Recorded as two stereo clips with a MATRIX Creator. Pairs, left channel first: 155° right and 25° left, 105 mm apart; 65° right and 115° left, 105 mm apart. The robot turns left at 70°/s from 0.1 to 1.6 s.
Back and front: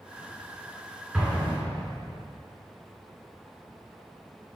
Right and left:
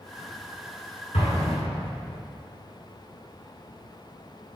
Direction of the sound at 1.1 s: 60° right.